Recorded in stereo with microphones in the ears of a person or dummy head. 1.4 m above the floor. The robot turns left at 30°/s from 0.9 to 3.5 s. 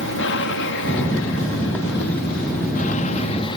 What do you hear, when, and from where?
0.0 s an aircraft: 110° left; by 3.6 s 30° left